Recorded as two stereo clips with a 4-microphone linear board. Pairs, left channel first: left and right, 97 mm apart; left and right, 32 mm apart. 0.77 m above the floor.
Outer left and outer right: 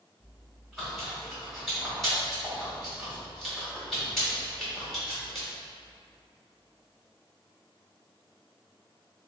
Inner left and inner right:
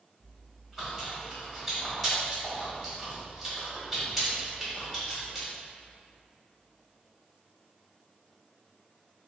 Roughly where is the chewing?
Centre.